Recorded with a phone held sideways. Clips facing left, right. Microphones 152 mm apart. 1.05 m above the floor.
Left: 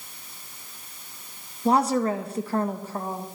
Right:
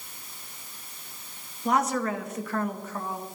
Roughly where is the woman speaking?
Left.